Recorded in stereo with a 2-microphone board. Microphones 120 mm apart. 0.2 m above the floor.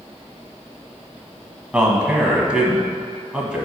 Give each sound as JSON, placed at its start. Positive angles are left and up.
{"t": 1.7, "sound": "a man speaking", "side_deg": -10, "distance_m": 1.3}